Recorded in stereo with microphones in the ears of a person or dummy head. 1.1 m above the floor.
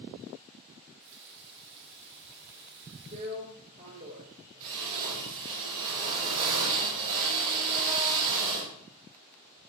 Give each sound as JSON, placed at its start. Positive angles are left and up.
{"t": 0.8, "sound": "a running tap", "side_deg": -65, "distance_m": 1.4}
{"t": 3.1, "sound": "a drill", "side_deg": -50, "distance_m": 3.0}